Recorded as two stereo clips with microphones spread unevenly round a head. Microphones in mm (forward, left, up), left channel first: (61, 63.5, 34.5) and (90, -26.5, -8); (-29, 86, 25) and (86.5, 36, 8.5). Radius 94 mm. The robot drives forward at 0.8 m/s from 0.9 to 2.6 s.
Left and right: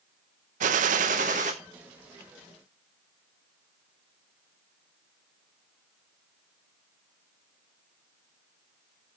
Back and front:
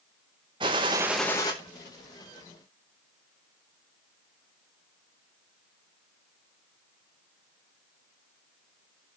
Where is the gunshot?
95° right, 0.5 m; by 1.5 s 140° right, 0.8 m.